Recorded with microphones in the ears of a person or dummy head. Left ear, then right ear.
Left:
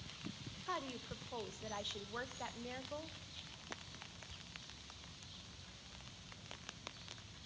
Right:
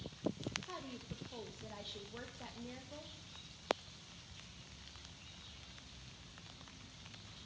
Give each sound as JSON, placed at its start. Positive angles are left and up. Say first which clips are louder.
{"t": 0.7, "sound": "a woman speaking", "louder": "left 5 dB", "side_deg": 45, "distance_m": 1.0}